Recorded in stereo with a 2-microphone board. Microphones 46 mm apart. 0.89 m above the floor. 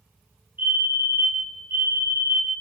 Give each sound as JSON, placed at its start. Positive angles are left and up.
{"t": 0.6, "sound": "a fire alarm", "side_deg": -50, "distance_m": 5.5}